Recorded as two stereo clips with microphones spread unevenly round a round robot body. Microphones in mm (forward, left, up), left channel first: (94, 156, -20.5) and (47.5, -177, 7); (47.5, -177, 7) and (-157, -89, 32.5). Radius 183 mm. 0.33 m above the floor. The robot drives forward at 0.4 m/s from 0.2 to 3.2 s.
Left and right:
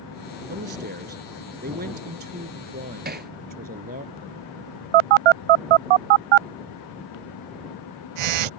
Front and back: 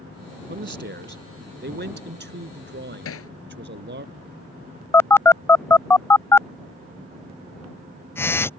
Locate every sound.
0.5 s a man speaking: 165° right
3.0 s hammering: 35° right
4.9 s a phone buzzing: 105° right